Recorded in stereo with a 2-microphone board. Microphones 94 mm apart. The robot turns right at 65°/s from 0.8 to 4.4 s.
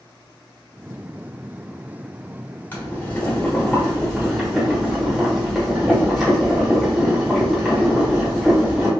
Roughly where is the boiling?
Centre.